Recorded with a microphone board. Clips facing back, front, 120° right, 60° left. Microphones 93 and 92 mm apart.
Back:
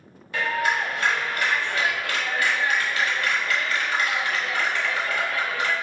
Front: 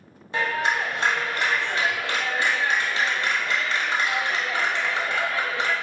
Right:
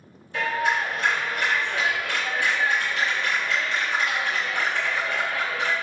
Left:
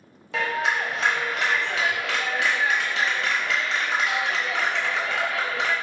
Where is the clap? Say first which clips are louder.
Even, right 1 dB; 65° left, 1.1 m.